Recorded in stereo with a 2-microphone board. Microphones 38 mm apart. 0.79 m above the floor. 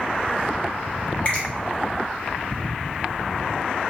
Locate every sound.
1.2 s a finger snap: 35° left (ahead or behind), 1.1 m